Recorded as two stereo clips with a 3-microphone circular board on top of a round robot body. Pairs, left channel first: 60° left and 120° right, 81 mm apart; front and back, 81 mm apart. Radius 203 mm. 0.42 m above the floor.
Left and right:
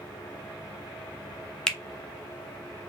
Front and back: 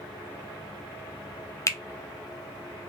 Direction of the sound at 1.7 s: 20° right.